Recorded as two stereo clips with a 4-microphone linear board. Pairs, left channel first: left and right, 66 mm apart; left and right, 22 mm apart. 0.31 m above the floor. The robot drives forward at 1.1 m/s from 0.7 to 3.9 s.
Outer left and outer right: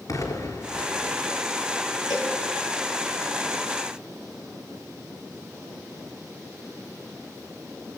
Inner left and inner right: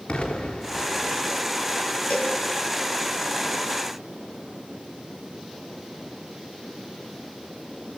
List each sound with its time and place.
0.1 s an explosion: 60° left (ahead or behind), 3.5 m; by 1.1 s 55° left (ahead or behind), 4 m
2.1 s a cowbell: 85° left, 5 m; by 2.4 s 80° left, 5.5 m